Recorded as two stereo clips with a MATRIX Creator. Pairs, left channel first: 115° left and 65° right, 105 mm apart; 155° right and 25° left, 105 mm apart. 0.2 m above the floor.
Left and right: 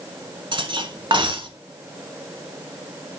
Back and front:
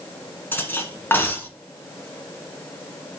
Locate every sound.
0.5 s cutlery clinking: 90° right, 1.4 m